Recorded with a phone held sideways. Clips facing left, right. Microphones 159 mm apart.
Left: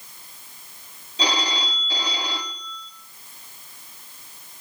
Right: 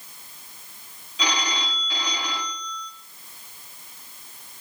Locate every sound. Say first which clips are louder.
1.2 s a phone ringing: left 2 dB; 35° left (ahead or behind), 2.5 m